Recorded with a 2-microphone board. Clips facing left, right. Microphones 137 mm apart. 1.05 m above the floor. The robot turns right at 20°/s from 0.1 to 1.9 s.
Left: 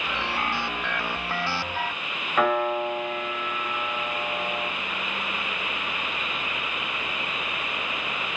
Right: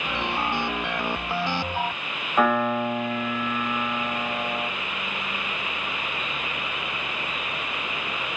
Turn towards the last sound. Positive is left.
turn(degrees=-10)  # may be behind; listen again after turning